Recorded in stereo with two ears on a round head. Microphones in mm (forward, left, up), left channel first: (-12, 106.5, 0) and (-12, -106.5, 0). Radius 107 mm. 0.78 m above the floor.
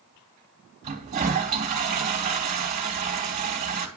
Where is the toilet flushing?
30° right (ahead or behind), 3 m.